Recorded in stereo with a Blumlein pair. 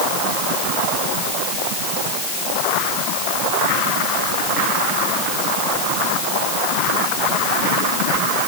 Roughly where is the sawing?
No sawing in this recording.